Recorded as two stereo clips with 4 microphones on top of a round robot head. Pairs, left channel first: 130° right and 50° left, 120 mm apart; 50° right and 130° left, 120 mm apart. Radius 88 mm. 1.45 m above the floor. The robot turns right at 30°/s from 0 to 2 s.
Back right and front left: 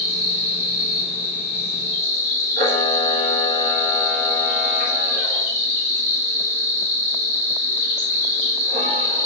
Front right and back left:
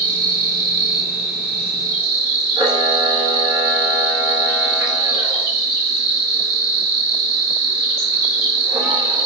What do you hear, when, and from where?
0.0 s an insect: 135° left, 1.6 m; by 9.3 s 165° right, 1.6 m
2.6 s a camera shutter: 70° left, 1.4 m